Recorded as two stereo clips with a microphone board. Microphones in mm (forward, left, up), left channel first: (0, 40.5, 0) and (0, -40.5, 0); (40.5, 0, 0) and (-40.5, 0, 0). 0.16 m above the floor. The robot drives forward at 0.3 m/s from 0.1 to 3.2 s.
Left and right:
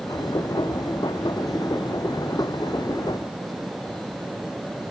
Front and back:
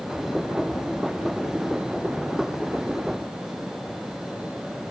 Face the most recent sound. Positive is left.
No sound to turn to.